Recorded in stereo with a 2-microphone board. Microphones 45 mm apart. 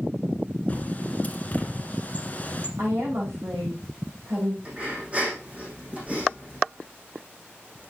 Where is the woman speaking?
75° right (ahead or behind), 6 m.